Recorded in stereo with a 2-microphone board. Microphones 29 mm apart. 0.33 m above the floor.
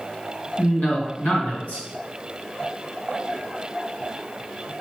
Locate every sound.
0.6 s a man speaking: 65° left (ahead or behind), 3.5 m